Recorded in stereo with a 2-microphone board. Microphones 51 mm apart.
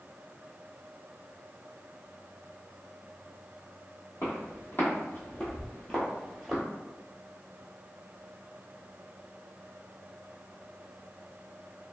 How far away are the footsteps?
About 1.9 m.